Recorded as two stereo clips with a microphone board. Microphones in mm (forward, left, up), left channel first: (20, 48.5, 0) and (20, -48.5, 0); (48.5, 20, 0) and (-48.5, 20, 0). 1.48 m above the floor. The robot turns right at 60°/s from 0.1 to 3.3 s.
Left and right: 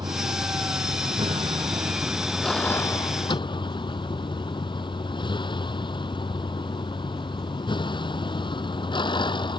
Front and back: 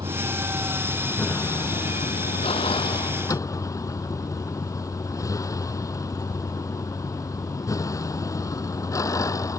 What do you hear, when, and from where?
0.0 s a vehicle: 135° right; by 9.6 s 55° left